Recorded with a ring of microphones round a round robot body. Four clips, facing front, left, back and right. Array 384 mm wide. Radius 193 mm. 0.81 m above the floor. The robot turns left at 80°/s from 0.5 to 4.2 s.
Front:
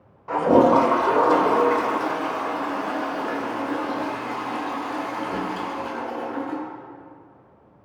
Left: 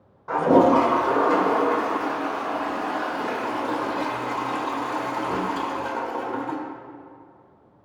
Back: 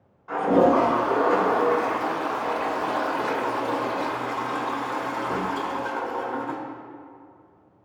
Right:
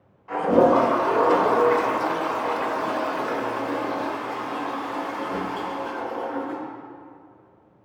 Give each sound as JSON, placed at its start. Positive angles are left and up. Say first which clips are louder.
{"t": 0.3, "sound": "a toilet flushing", "louder": "left 1 dB, front 3 dB", "azimuth_deg": 40, "distance_m": 1.6}